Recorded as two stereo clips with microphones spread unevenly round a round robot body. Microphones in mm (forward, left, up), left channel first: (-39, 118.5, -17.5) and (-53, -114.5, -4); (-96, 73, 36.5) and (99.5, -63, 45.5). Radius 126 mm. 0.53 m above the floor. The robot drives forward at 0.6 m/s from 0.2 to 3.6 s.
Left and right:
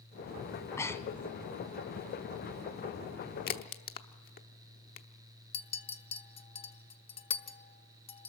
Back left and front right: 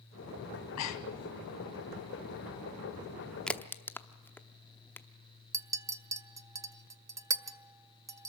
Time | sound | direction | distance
0.5 | breathing | 165° left | 0.8 m
3.5 | a crack | 60° left | 0.8 m
5.5 | a clink | 40° left | 0.7 m